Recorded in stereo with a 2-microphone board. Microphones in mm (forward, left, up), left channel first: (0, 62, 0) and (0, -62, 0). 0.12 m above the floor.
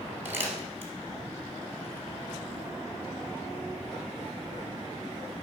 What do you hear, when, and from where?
0.2 s crumpling: 15° right (ahead or behind), 1.9 m